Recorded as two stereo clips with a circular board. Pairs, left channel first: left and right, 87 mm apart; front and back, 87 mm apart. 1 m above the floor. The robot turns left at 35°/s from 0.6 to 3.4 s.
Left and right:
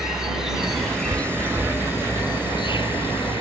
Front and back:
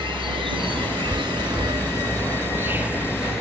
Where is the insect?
175° right; by 3.4 s 90° left.